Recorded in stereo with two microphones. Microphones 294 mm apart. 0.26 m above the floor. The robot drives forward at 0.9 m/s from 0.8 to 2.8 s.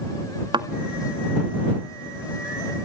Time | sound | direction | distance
0.5 | a thud | 15° right (ahead or behind) | 0.5 m